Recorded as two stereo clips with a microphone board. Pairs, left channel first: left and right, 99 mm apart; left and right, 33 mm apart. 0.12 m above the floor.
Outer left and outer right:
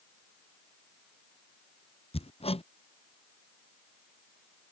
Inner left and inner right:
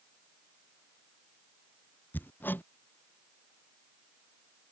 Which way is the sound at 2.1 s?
80° left.